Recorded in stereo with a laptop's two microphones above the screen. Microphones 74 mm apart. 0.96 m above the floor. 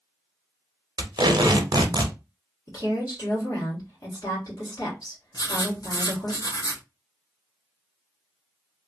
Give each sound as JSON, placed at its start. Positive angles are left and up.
{"t": 1.0, "sound": "tape being pulled", "side_deg": -75, "distance_m": 0.7}
{"t": 2.7, "sound": "a woman speaking", "side_deg": 50, "distance_m": 1.7}
{"t": 5.3, "sound": "writing", "side_deg": 65, "distance_m": 0.8}